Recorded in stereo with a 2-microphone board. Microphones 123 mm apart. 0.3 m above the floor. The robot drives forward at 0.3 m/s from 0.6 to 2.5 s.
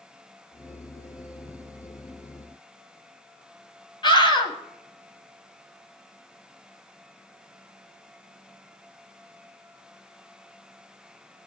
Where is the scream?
40° left (ahead or behind), 1.6 m.